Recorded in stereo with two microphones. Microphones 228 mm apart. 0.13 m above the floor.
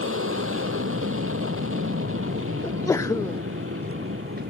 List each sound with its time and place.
0.0 s an aircraft: 70° right (ahead or behind)
2.6 s a sneeze: 15° left (ahead or behind)